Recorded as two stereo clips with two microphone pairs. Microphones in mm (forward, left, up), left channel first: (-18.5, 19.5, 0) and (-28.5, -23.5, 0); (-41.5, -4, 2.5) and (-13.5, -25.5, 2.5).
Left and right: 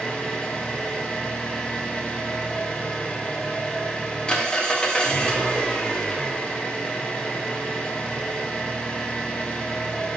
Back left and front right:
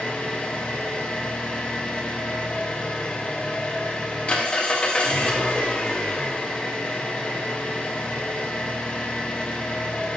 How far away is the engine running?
About 0.7 m.